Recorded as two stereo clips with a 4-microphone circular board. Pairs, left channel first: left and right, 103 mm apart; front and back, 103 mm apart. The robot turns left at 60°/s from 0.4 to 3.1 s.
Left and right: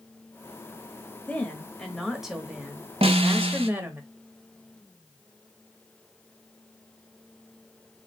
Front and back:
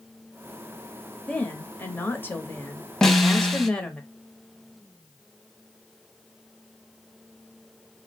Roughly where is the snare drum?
Right.